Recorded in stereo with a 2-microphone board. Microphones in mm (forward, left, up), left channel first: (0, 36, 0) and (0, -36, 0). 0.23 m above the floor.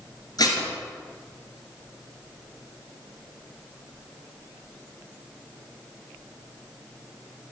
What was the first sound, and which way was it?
Dishes clattering, 60° left (ahead or behind).